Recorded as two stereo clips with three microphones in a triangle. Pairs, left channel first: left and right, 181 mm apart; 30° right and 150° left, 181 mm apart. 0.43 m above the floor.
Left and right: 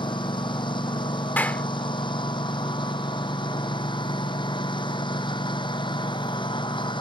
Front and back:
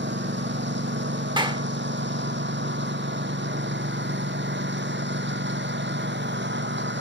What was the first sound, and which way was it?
A lawn mower, 155° left.